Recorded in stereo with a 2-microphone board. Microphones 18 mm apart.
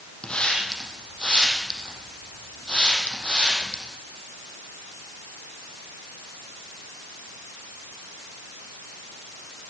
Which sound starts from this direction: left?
A hiss, at 0.2 s.